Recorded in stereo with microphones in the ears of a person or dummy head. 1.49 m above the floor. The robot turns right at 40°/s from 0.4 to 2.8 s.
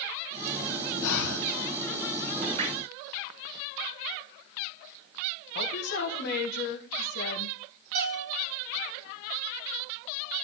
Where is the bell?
50° right (ahead or behind), 2.5 m.